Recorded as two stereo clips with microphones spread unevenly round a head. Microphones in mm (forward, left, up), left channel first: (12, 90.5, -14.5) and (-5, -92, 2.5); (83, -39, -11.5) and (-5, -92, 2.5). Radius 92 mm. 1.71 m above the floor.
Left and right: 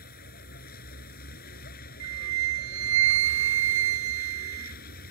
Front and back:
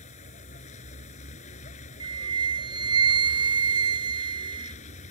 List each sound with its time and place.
0.0 s a vehicle: 40° left
2.0 s a flute: 105° right